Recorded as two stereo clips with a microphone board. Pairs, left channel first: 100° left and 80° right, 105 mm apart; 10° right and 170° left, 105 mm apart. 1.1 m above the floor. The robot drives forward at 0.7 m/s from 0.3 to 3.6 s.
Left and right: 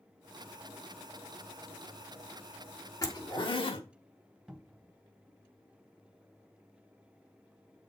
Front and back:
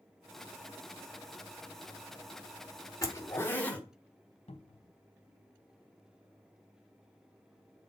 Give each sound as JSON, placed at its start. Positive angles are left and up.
{"t": 3.0, "sound": "a zipper", "azimuth_deg": 45, "distance_m": 1.1}
{"t": 4.5, "sound": "a cupboard door", "azimuth_deg": 5, "distance_m": 0.6}